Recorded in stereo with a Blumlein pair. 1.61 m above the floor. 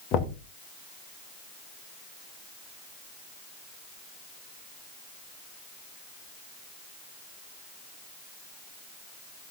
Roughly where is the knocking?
Ahead left.